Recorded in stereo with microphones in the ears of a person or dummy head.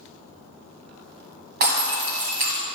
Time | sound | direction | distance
1.6 | breaking glass | 45° right (ahead or behind) | 1.5 m